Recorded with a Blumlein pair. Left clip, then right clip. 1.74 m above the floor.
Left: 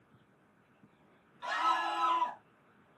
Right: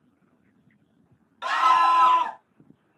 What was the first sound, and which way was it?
A scream, 55° right.